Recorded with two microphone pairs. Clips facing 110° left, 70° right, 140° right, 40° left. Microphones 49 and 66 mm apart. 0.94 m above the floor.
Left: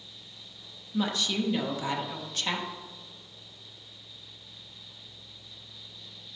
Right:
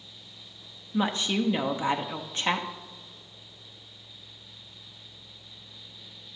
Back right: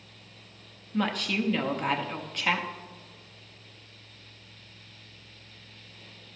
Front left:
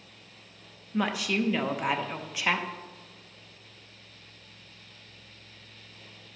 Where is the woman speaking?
40° right, 0.8 m.